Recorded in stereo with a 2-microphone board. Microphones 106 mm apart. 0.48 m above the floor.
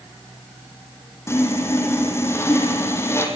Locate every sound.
1.3 s sawing: 25° left (ahead or behind), 4 m